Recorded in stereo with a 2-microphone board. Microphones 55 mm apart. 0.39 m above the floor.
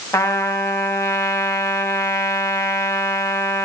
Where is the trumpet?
65° left (ahead or behind), 2 m.